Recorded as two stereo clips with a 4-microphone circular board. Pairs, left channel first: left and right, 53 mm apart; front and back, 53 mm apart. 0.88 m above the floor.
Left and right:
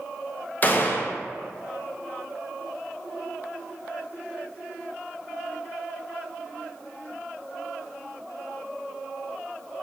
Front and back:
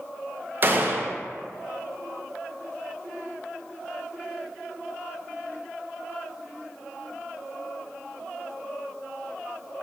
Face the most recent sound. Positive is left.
turn(degrees=135)